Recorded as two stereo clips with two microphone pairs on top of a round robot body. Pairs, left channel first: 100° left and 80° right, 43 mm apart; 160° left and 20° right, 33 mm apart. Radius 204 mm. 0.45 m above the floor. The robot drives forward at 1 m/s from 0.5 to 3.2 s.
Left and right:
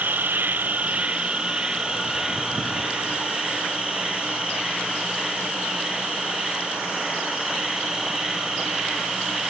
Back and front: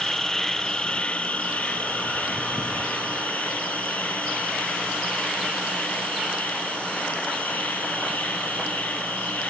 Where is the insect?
120° right, 1.2 m; by 9.5 s 165° right, 3.5 m.